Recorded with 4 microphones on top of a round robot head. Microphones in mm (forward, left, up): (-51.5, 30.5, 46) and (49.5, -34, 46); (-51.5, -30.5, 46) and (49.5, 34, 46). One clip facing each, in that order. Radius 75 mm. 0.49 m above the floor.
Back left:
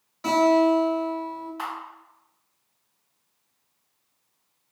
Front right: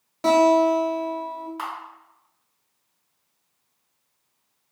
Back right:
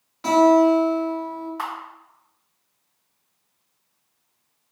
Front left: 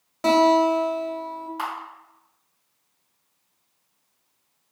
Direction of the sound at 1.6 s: 35° right.